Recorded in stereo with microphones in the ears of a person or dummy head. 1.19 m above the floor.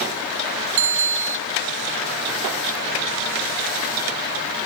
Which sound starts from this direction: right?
A bicycle bell, at 0.8 s.